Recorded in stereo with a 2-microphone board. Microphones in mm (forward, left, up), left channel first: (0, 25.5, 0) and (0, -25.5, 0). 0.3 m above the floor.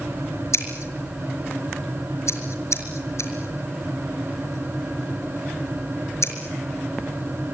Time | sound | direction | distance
0.5 | scissors | 70° left (ahead or behind) | 5 m